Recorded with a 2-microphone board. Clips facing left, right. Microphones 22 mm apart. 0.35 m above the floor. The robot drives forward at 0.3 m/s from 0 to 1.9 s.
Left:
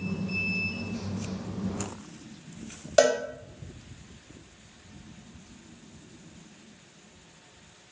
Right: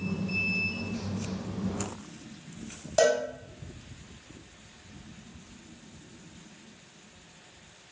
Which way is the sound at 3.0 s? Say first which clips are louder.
Left 2 dB; 45° left (ahead or behind).